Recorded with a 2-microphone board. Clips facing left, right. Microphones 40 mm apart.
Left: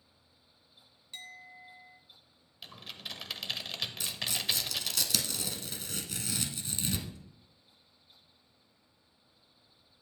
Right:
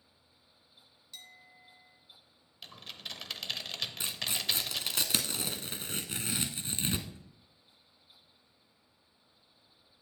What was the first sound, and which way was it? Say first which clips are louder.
A clink: left 6 dB; 45° left (ahead or behind).